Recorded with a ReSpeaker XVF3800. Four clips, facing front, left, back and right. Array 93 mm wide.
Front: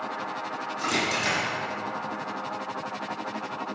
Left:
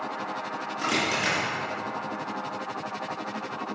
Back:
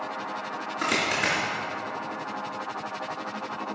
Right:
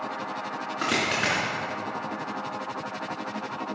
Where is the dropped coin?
125° right, 3.5 m.